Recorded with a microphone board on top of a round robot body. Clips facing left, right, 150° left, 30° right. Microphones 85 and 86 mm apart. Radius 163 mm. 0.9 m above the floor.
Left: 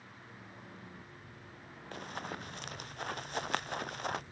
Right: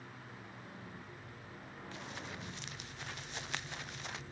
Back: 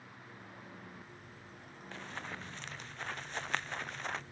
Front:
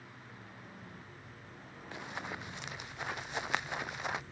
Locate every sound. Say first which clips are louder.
1.9 s running footsteps: left 6 dB, front 2 dB; 45° left; by 4.2 s 50° left